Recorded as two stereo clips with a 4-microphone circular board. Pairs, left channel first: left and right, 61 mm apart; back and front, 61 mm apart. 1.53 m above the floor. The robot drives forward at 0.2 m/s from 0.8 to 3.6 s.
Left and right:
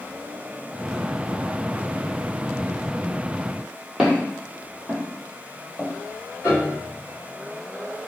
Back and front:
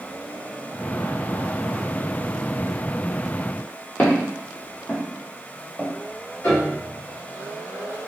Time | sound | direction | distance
4.0 | footsteps | 170° right | 1.7 m
6.4 | a piano | 155° left | 1.9 m